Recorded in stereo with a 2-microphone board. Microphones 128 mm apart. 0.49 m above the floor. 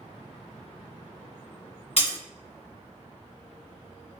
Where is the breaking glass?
55° left (ahead or behind), 2 m.